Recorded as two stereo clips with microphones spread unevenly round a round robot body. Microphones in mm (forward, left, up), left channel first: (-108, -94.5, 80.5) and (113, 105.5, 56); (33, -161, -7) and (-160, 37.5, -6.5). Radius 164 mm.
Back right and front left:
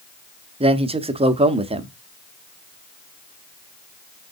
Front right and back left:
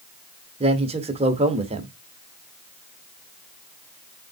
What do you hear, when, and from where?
0.6 s a man speaking: 85° left, 0.9 m